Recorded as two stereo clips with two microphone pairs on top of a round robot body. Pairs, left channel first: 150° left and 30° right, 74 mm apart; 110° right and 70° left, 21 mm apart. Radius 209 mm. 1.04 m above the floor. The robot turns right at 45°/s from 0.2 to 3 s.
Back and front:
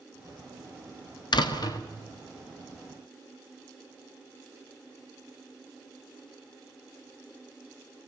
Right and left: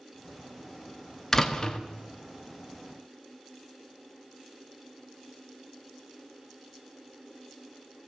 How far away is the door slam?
About 1.5 m.